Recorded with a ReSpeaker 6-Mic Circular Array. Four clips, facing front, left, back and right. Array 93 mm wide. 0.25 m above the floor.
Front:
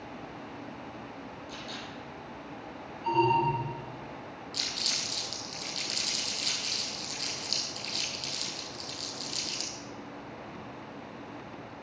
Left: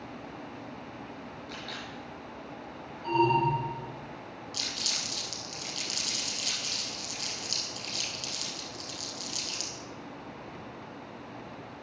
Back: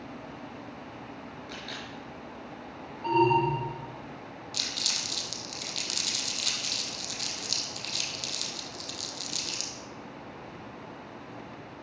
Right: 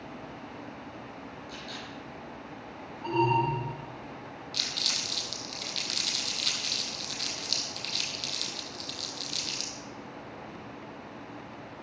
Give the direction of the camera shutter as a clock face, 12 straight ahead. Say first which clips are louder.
Left 1 dB, back 1 dB; 7 o'clock.